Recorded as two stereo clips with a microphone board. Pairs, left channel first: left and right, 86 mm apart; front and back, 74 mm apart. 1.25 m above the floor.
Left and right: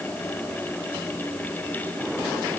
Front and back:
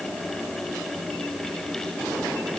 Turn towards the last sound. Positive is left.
No sound to turn to.